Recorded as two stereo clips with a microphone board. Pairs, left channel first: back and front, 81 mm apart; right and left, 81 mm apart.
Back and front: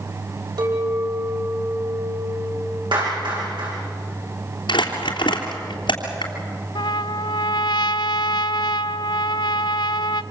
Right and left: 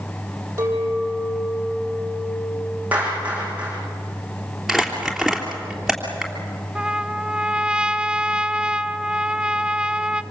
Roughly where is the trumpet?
Behind.